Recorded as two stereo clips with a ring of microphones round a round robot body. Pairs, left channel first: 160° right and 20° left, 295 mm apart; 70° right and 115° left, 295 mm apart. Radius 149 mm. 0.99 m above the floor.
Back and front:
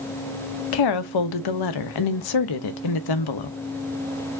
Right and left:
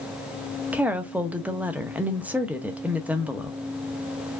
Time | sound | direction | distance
0.7 | a woman speaking | 160° right | 0.7 m